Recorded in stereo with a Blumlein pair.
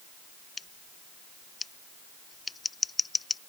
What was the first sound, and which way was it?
Scissors, 15° left.